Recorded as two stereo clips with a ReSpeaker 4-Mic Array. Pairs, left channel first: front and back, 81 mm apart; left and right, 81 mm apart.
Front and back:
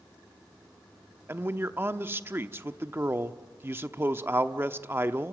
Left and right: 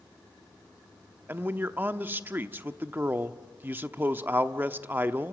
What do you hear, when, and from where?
1.3 s a man speaking: 140° right, 0.8 m